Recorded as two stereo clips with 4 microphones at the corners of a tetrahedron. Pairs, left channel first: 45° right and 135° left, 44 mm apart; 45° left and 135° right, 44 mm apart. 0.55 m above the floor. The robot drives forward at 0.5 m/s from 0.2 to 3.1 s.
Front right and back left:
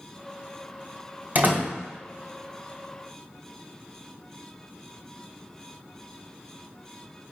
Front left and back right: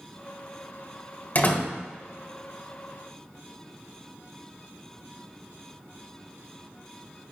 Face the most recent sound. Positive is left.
turn(degrees=120)